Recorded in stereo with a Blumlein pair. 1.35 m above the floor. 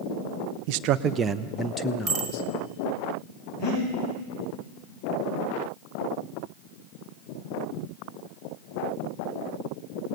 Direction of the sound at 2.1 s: 35° right.